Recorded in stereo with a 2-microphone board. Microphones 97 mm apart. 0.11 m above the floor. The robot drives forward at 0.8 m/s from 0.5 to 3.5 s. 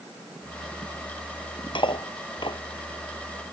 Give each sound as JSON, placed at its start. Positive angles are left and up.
{"t": 1.8, "sound": "cutlery clinking", "side_deg": 60}